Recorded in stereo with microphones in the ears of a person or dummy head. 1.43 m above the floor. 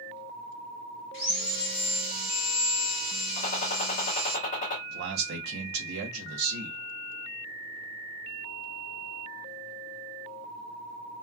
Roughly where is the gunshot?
Left.